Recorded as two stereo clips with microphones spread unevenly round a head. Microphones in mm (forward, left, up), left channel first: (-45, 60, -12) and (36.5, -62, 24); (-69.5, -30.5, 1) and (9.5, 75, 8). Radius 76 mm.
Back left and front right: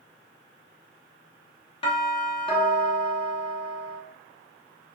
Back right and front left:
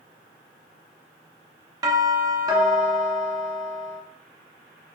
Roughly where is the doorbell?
Left.